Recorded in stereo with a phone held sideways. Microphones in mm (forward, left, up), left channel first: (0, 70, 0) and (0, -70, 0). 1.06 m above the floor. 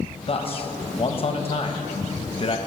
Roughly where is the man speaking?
Left.